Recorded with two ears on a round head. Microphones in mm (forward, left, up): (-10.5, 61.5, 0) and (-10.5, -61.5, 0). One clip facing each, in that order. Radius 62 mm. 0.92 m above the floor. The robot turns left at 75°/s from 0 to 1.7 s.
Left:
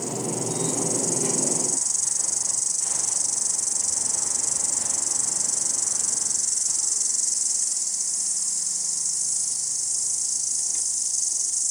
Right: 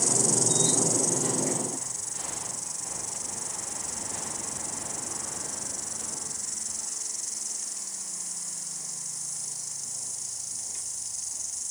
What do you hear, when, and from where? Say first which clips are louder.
0.0 s an insect: left 1 dB; 105° right; by 11.7 s 125° left